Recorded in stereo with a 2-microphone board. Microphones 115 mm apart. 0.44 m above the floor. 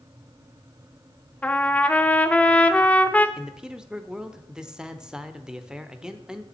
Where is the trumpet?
15° left (ahead or behind), 0.7 m.